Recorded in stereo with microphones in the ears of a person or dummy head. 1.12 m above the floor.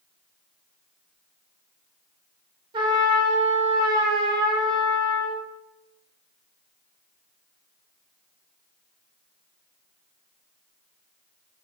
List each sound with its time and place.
2.7 s a trumpet: 25° right (ahead or behind), 0.6 m